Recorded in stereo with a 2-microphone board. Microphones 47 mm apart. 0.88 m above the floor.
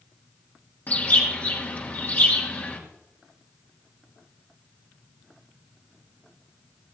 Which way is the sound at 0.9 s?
40° left (ahead or behind).